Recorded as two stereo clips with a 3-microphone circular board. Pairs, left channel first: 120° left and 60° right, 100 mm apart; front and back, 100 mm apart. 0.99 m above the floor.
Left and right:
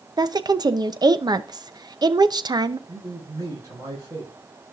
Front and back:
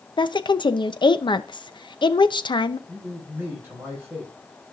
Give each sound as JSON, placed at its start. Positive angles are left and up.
{"t": 0.2, "sound": "a woman speaking", "azimuth_deg": -25, "distance_m": 0.7}
{"t": 2.9, "sound": "a man speaking", "azimuth_deg": -110, "distance_m": 6.5}